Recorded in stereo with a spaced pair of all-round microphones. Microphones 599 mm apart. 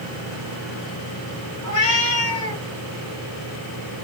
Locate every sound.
1.6 s a cat meowing: 60° left (ahead or behind), 0.9 m